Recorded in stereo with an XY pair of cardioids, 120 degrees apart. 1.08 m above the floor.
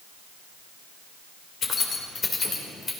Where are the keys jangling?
40° left, 2.5 m; by 2.9 s 25° left, 2.5 m.